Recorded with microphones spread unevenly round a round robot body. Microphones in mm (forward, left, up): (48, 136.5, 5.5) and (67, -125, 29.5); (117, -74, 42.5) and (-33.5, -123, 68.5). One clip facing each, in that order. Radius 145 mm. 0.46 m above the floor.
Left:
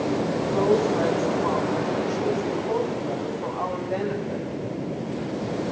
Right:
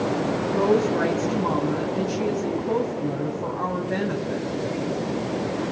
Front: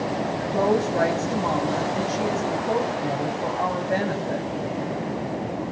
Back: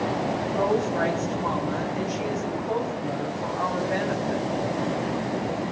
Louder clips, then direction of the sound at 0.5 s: Right 1 dB, front 3 dB; 35° right.